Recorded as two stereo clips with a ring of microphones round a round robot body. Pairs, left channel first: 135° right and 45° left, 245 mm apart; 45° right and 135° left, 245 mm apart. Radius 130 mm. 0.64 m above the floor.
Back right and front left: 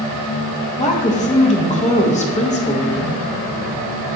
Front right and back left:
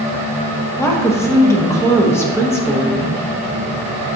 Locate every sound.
0.8 s a woman speaking: 115° right, 1.1 m